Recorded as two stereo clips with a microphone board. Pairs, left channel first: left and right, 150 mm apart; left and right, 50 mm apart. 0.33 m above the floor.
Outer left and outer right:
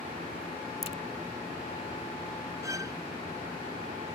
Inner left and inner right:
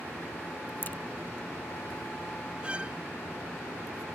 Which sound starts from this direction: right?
A violin, at 2.6 s.